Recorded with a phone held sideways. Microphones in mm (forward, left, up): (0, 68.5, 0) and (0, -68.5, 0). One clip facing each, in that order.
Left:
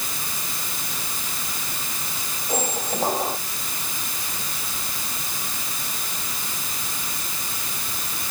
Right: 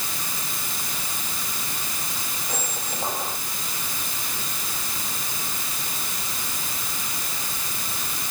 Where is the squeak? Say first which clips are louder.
Left 9 dB; 30° left (ahead or behind).